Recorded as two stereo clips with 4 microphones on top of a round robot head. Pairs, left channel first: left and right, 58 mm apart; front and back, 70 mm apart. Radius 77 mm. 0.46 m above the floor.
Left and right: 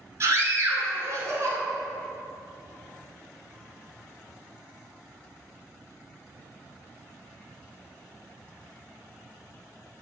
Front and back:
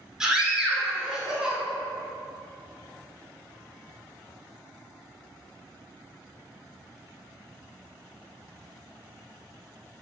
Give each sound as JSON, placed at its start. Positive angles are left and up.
{"t": 0.2, "sound": "a scream", "azimuth_deg": -100, "distance_m": 1.9}